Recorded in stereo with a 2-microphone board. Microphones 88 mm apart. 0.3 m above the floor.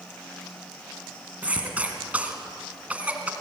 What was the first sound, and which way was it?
A cough, 15° right (ahead or behind).